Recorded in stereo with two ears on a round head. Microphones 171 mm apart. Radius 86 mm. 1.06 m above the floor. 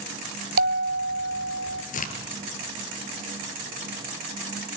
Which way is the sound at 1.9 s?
45° left (ahead or behind).